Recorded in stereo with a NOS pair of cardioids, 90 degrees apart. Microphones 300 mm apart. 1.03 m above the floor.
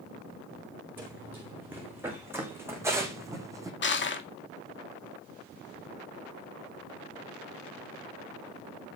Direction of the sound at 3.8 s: 40° left.